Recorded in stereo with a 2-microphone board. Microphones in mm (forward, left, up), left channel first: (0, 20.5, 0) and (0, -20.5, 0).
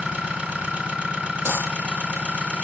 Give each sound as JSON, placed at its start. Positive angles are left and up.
{"t": 0.0, "sound": "an engine running", "side_deg": -25, "distance_m": 2.5}
{"t": 1.4, "sound": "a dropped coin", "side_deg": -65, "distance_m": 6.0}